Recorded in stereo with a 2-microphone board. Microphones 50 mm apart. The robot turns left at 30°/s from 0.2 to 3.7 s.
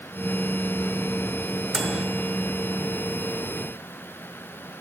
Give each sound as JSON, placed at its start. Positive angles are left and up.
{"t": 1.7, "sound": "a microwave", "side_deg": -10, "distance_m": 0.8}